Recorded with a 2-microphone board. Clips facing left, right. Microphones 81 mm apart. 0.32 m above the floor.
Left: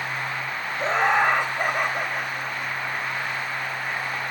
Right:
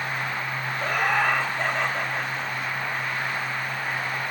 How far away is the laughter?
About 1.4 m.